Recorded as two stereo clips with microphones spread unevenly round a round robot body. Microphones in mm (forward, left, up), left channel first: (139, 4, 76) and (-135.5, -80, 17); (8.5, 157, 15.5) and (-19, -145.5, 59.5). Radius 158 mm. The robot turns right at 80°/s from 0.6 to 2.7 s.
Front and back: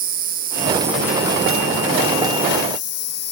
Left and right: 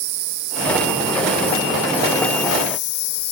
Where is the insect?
105° right, 1.3 m; by 3.3 s 60° left, 1.3 m.